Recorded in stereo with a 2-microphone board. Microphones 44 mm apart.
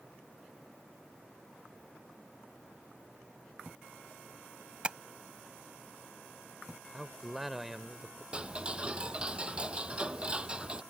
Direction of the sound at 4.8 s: 25° right (ahead or behind).